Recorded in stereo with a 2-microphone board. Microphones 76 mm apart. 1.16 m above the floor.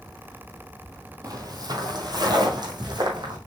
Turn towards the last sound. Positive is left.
turn(degrees=-70)  # may be behind; listen again after turning